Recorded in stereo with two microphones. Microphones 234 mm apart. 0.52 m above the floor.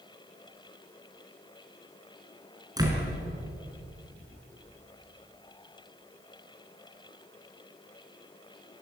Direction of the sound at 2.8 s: 15° right (ahead or behind).